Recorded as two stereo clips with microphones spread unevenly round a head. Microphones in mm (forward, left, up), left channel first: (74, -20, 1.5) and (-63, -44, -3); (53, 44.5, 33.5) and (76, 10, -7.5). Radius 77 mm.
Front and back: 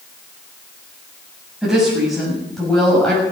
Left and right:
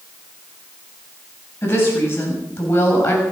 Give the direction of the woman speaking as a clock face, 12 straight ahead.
9 o'clock.